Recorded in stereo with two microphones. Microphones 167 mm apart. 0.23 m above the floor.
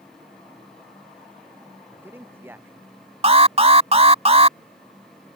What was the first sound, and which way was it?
A man speaking, 15° right (ahead or behind).